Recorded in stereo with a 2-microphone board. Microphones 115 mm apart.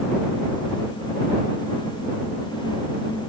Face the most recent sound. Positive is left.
No sound to turn to.